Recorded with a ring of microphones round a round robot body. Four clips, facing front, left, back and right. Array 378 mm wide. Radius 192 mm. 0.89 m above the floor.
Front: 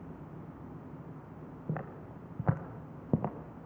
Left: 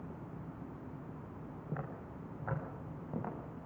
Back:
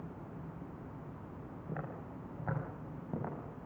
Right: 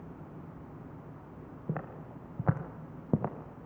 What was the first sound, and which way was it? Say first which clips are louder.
Footsteps: right 5 dB, front 3 dB; 60° right.